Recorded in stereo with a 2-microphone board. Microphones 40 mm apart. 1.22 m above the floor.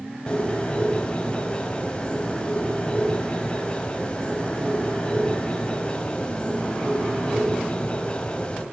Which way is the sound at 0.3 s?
25° left (ahead or behind).